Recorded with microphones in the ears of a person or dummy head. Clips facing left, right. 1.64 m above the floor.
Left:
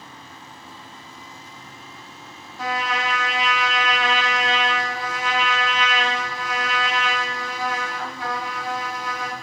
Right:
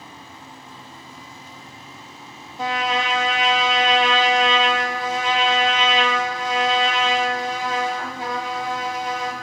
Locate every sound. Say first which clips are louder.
2.6 s a trumpet: right 3 dB; 25° right (ahead or behind), 0.7 m